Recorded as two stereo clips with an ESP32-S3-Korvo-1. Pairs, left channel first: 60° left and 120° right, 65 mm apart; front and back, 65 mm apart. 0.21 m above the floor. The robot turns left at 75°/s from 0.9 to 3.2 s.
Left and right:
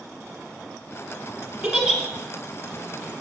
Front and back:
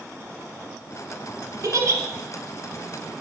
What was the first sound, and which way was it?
A giggle, straight behind.